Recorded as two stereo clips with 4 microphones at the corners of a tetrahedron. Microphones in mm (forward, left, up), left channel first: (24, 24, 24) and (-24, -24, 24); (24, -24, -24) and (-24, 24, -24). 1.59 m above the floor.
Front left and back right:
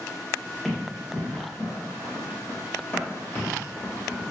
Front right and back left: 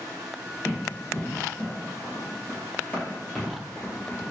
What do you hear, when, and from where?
0.7 s running footsteps: 40° right, 1.8 m; by 4.2 s 25° left, 2.5 m